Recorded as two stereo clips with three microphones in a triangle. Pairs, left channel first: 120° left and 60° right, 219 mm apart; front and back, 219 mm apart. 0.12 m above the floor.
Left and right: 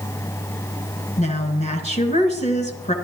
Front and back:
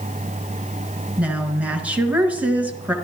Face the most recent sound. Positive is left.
turn(degrees=100)